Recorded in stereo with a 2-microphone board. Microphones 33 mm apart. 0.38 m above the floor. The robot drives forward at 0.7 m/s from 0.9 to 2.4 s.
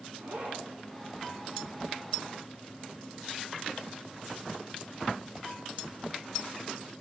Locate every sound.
0.2 s a zipper: 65° right (ahead or behind), 3 m